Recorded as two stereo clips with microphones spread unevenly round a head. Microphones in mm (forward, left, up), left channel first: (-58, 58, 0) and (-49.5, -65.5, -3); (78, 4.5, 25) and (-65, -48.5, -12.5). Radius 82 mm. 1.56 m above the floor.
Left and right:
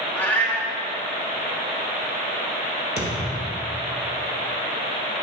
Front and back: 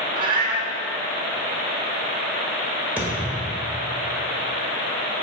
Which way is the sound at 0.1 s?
165° left.